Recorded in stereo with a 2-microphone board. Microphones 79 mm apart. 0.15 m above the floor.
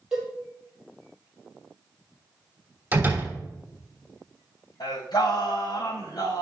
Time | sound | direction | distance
0.1 | a cowbell | 10° right (ahead or behind) | 5 m
2.9 | a door slam | 25° right (ahead or behind) | 3 m
4.8 | singing | 70° left (ahead or behind) | 4 m